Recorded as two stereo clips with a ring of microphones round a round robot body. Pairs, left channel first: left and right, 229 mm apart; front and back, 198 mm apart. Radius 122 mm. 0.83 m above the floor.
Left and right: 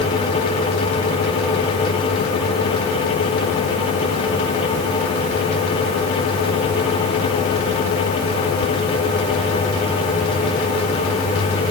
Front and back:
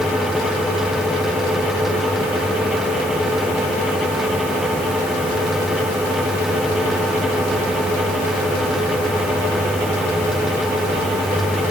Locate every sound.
Only background noise.